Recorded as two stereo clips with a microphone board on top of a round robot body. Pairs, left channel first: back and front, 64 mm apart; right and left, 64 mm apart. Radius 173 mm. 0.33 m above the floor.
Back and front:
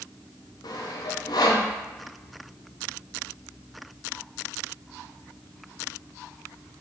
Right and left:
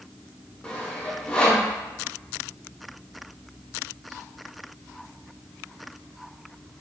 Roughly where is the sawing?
Behind.